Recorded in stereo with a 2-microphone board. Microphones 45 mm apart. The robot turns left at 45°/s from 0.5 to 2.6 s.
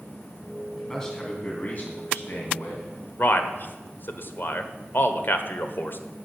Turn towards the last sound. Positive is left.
turn(degrees=55)  # may be behind; listen again after turning